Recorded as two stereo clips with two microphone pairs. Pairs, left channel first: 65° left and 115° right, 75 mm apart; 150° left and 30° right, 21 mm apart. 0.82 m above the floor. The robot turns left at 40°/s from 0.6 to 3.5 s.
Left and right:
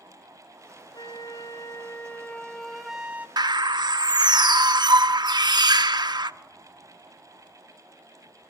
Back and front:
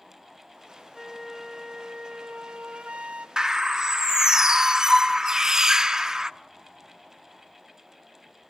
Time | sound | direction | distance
0.9 | a flute | 50° left | 2 m
3.4 | a bird | 90° right | 0.8 m